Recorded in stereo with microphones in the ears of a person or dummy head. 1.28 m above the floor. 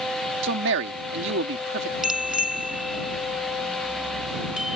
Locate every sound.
0.4 s a man speaking: 65° right (ahead or behind)
2.0 s a bicycle bell: 5° right (ahead or behind)